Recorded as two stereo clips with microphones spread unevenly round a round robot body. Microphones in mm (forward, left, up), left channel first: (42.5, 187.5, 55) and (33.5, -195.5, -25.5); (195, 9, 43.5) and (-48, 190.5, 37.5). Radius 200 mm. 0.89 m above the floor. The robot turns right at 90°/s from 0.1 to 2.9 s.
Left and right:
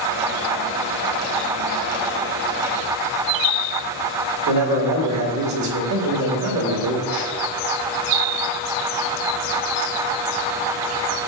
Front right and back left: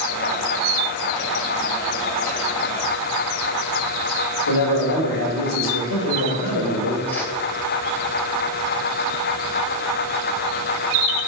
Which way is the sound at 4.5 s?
45° right.